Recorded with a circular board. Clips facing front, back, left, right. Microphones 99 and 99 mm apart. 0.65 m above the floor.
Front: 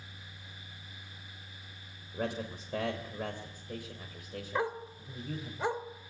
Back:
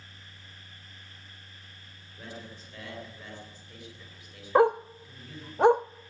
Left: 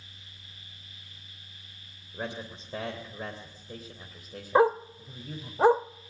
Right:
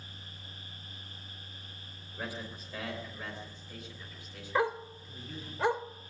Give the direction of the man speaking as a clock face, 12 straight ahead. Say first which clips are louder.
Front 8 dB, left 4 dB; 11 o'clock.